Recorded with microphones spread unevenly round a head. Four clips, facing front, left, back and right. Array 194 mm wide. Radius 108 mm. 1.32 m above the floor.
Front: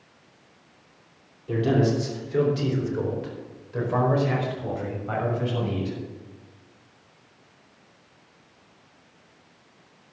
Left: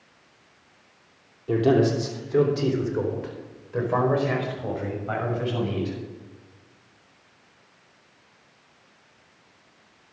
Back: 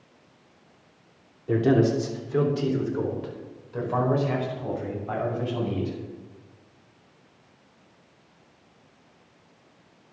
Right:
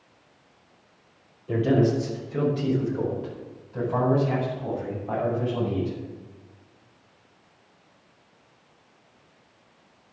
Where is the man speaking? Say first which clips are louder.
Left 2 dB, back 2 dB; 135° left, 3 m; by 6.0 s 80° left, 7.5 m.